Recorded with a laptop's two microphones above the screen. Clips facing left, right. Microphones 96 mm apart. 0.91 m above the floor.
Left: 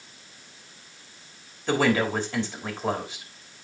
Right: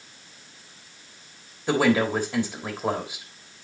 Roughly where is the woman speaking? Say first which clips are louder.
Right 2 dB; centre.